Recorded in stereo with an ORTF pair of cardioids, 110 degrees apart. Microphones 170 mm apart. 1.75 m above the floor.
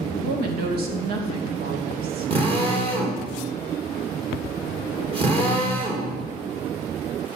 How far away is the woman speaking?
About 2.5 m.